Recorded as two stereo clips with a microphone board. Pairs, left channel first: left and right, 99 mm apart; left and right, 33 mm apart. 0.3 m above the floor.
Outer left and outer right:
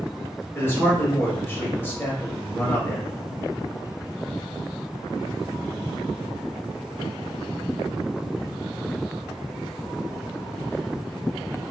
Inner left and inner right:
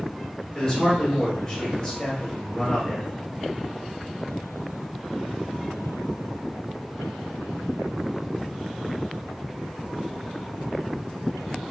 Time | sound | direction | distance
0.6 | a man speaking | 25° left (ahead or behind) | 1.0 m